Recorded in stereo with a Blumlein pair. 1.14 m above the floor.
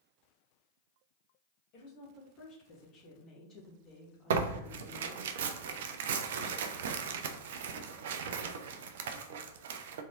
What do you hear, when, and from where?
1.7 s a woman speaking: 45° left, 2.5 m; by 5.3 s 5° right, 2 m
4.3 s tearing paper: 55° right, 0.5 m